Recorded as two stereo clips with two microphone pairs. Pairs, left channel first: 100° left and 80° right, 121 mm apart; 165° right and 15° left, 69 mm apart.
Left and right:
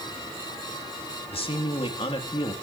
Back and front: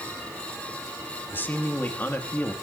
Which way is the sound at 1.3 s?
135° left.